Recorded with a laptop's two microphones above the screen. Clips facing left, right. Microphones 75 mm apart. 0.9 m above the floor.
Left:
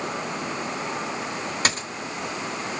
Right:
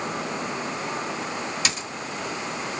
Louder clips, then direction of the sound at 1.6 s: Left 3 dB; 45° left (ahead or behind).